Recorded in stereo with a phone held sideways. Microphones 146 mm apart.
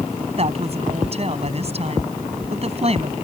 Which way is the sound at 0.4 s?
45° right (ahead or behind).